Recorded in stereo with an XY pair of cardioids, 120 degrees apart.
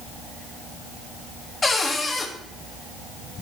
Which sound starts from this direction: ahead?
A cupboard door, at 1.6 s.